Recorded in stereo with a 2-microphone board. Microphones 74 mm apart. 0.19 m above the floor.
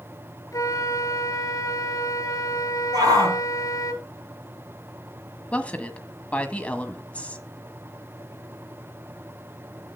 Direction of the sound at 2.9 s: 55° right (ahead or behind).